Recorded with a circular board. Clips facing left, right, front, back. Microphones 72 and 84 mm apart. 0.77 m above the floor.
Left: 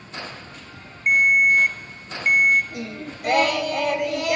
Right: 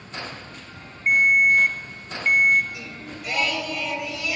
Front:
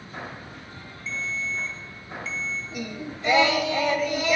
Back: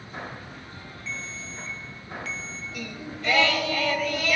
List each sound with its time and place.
1.1 s a ringtone: 160° left, 0.8 m
2.7 s singing: 65° left, 0.9 m